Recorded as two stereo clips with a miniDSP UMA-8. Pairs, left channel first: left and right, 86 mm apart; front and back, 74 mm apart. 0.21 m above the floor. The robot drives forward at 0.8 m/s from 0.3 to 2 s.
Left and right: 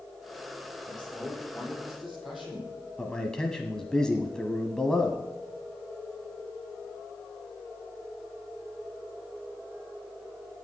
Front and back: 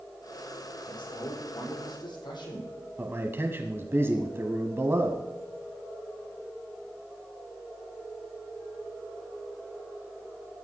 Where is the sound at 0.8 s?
Straight ahead, 7.5 m.